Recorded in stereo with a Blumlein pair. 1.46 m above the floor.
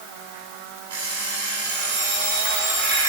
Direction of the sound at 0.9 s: 60° right.